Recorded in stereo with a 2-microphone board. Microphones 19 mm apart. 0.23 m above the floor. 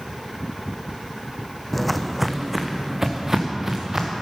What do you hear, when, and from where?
1.7 s footsteps: 5° left (ahead or behind), 0.8 m; by 4.2 s 30° right (ahead or behind), 2 m